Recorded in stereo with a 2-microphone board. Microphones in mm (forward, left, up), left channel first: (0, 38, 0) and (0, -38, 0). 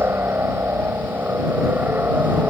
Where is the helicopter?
30° right (ahead or behind); by 2.5 s 25° right (ahead or behind).